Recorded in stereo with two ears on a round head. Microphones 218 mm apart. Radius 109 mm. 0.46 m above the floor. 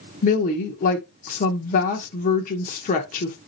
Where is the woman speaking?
30° left (ahead or behind), 0.8 m.